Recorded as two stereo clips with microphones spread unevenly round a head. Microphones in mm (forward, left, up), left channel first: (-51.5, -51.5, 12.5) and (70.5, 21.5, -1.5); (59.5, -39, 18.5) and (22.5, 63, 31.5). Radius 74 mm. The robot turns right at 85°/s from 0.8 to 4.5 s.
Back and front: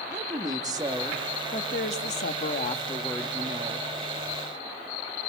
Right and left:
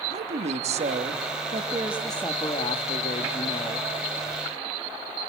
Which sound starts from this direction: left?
A woman speaking, at 0.1 s.